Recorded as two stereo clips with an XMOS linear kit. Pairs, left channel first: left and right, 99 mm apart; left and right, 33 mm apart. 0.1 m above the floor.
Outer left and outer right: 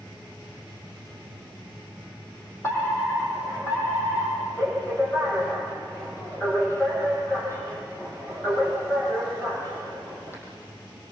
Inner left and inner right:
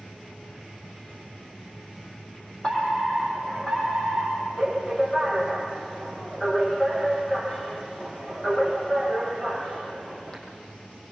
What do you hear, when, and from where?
2.6 s a fire alarm: 25° left (ahead or behind), 6 m